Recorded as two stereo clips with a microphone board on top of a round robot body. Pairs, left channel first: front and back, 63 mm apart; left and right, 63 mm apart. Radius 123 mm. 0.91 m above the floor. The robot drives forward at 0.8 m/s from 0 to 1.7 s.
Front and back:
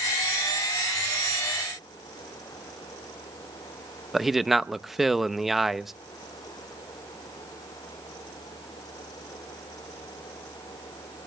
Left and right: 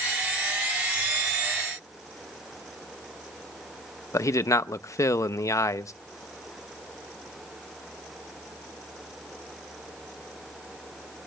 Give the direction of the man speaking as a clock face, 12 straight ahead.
9 o'clock.